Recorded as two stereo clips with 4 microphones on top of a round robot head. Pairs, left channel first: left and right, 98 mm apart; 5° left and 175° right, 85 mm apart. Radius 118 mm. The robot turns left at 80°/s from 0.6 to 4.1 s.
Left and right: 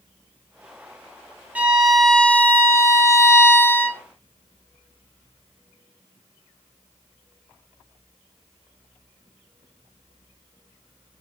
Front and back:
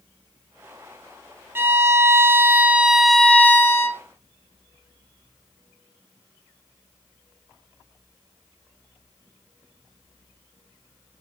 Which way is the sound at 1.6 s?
145° right.